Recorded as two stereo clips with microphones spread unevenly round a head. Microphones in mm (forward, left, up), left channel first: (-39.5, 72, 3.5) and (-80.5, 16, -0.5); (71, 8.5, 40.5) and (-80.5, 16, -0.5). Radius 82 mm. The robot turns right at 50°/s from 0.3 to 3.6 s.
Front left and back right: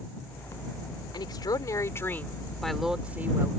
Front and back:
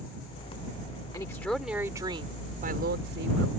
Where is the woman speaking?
65° left; by 3.5 s straight behind.